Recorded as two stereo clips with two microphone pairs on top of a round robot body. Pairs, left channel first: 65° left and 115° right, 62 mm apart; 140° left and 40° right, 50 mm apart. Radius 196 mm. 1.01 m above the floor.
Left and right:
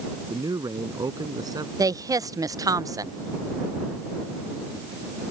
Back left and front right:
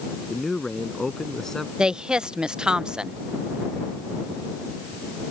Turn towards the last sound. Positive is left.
turn(degrees=-115)